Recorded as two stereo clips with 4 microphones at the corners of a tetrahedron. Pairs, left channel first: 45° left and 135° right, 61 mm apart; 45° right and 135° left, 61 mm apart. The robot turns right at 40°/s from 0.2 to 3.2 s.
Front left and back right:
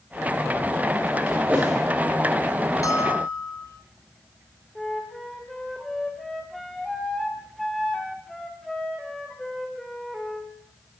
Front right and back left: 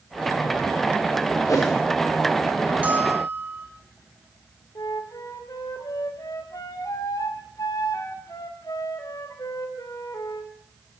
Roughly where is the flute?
Ahead right.